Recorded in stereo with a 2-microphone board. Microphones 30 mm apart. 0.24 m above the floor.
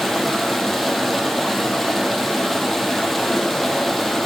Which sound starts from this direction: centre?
Running water, at 0.0 s.